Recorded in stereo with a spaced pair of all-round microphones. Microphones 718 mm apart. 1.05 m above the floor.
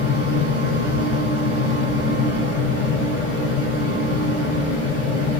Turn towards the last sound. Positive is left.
turn(degrees=20)  # may be behind; listen again after turning